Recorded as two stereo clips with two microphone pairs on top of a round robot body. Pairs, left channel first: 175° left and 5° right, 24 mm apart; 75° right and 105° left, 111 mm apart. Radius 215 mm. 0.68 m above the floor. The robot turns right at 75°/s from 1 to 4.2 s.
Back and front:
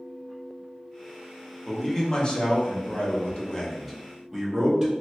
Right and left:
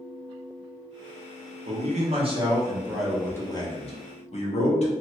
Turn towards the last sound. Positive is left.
turn(degrees=-80)